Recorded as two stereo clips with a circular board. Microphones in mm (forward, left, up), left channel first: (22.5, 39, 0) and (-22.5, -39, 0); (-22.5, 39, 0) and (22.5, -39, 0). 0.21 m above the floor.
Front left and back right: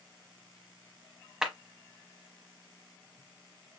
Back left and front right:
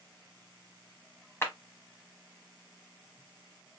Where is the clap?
160° left, 1.0 m.